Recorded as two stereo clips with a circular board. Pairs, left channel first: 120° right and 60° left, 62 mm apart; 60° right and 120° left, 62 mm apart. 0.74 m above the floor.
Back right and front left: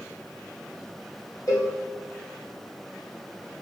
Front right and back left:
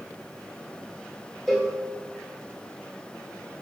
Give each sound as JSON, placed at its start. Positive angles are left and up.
{"t": 1.5, "sound": "a cowbell", "azimuth_deg": -150, "distance_m": 0.8}